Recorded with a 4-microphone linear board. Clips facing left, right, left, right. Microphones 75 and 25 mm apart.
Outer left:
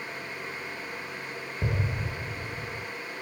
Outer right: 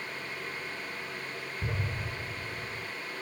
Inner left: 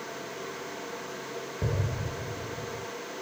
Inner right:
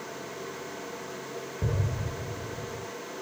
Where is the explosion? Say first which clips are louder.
Outer left 5 dB, even; 75° left (ahead or behind), 4.5 m.